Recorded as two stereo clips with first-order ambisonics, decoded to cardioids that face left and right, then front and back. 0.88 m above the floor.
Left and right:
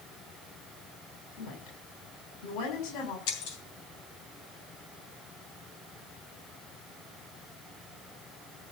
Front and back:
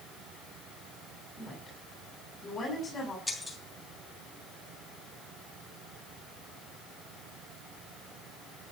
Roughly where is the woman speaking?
Left.